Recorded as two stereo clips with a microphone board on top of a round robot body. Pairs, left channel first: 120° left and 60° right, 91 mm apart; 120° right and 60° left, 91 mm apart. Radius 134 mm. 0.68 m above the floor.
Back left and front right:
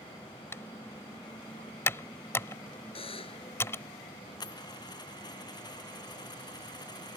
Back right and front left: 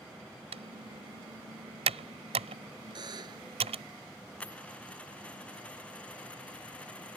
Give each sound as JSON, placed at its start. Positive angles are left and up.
{"t": 0.5, "sound": "typing on a keyboard", "azimuth_deg": 55}
{"t": 3.0, "sound": "a buzzer", "azimuth_deg": 100}
{"t": 4.4, "sound": "a dropped coin", "azimuth_deg": 165}